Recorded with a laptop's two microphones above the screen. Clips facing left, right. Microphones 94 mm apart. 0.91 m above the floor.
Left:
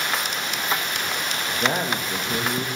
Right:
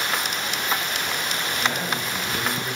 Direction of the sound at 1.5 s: 45° left (ahead or behind).